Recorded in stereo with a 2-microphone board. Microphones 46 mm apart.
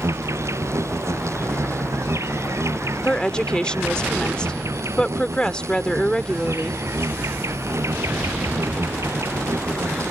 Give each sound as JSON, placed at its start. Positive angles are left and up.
{"t": 0.0, "sound": "an insect", "side_deg": -90}
{"t": 3.0, "sound": "a woman speaking", "side_deg": 20}